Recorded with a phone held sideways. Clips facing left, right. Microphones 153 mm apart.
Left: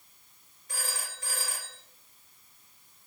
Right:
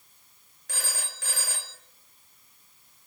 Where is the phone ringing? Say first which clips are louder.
Right 1 dB; 85° right, 1.3 m.